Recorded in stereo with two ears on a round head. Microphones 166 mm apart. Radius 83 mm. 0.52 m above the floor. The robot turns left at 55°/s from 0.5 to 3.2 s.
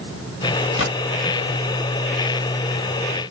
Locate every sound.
0.8 s a gunshot: 75° left (ahead or behind), 2 m; by 0.9 s 80° left, 2 m